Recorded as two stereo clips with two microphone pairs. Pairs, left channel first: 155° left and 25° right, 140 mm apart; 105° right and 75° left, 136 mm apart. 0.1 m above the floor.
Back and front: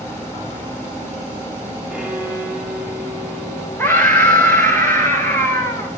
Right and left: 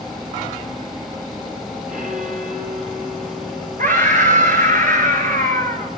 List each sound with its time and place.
1.9 s a violin: 55° left, 8.5 m
3.8 s a scream: 80° left, 8.5 m